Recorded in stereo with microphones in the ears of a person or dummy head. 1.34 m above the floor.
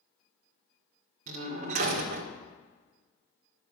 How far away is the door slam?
About 2 m.